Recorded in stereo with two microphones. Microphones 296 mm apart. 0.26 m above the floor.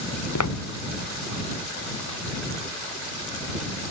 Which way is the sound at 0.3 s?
75° left (ahead or behind).